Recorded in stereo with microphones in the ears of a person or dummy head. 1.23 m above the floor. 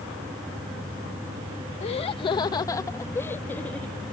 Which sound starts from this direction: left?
Laughter, at 1.8 s.